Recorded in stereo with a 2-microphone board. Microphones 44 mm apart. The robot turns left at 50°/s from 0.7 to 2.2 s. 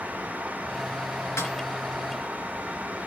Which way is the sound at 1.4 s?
75° left (ahead or behind).